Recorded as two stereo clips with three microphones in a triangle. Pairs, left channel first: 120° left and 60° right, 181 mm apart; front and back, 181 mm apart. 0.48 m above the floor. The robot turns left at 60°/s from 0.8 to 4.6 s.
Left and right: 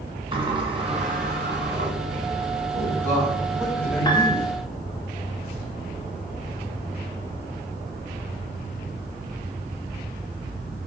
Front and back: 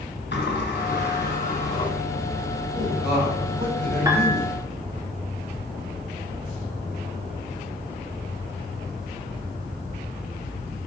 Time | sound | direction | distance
0.3 | a sliding door | straight ahead | 1.6 m
2.7 | a man speaking | 75° right | 3 m
4.0 | a piano | 145° left | 1.3 m